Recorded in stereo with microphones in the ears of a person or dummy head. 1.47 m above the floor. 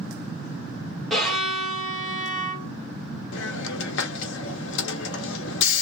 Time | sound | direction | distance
1.1 | a violin | 5° left (ahead or behind) | 1.2 m
3.3 | a hiss | 60° left (ahead or behind) | 0.7 m